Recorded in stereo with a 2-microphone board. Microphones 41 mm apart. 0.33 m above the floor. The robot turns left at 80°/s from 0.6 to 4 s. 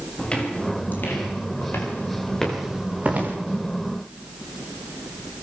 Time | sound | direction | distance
0.2 | footsteps | 25° left (ahead or behind) | 9.5 m